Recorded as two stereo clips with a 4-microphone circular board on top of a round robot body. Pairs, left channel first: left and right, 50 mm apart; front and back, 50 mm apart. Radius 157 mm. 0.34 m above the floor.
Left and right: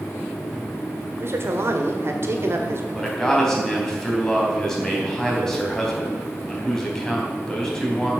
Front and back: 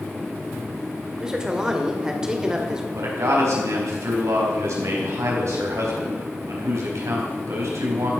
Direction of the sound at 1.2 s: 105° right.